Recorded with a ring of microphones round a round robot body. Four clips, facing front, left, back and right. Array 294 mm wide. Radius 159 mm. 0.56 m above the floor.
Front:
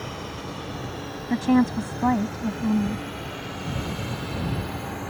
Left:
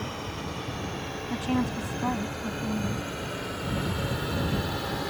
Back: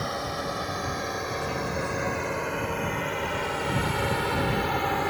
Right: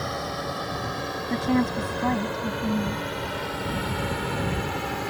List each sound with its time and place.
0.0 s a drone: 135° right; by 5.1 s 170° right
1.3 s a woman speaking: 10° right